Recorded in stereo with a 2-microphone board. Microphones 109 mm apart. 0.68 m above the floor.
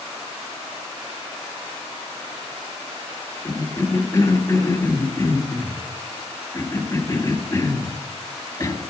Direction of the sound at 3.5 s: 30° left (ahead or behind).